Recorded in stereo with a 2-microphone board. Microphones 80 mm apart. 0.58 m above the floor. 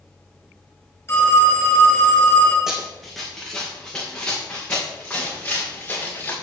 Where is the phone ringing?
30° left (ahead or behind), 4.5 m.